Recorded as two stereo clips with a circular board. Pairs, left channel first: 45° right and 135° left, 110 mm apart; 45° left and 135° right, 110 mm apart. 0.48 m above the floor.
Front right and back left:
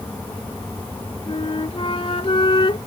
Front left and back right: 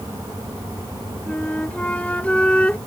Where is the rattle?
No rattle in this recording.